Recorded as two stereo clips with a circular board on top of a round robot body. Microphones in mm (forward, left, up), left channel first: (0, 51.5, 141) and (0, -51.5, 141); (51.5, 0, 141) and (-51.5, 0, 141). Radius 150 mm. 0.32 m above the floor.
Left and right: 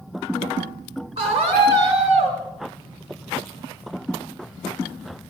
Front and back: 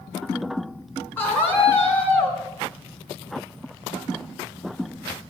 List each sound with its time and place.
1.2 s a scream: 75° right, 6.5 m